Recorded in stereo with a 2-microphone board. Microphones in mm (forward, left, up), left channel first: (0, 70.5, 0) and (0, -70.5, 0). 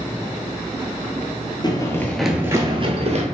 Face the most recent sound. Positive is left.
turn(degrees=-55)  # may be behind; listen again after turning